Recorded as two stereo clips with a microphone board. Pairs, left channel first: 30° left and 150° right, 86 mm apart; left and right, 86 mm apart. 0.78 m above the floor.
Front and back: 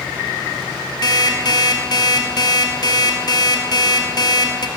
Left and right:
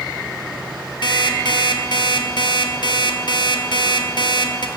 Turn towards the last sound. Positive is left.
turn(degrees=70)